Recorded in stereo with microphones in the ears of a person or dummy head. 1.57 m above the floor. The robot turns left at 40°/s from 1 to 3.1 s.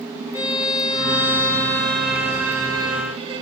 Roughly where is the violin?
Ahead left.